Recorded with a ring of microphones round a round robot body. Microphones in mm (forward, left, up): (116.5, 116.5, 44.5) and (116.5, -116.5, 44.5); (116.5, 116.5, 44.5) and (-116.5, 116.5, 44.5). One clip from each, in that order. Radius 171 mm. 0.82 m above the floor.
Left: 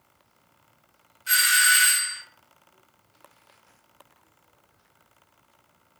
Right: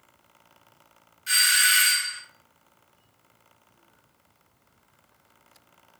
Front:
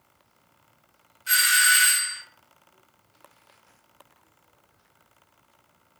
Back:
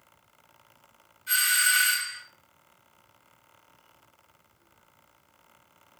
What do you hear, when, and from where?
1.3 s a doorbell: 5° right, 1.0 m